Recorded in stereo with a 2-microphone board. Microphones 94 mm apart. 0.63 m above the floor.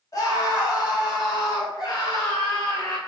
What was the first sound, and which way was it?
A scream, 40° left (ahead or behind).